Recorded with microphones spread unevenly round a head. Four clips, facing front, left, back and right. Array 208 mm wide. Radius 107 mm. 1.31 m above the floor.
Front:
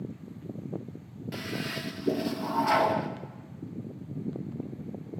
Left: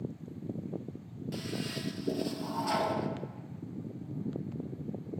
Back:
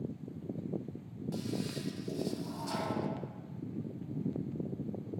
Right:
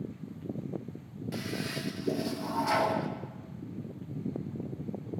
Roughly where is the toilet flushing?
Ahead.